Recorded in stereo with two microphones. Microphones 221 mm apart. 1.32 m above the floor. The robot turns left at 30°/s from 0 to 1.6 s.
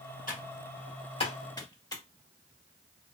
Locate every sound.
0.3 s typing on a keyboard: 40° left (ahead or behind), 1.3 m; by 2.0 s 20° left (ahead or behind), 1.3 m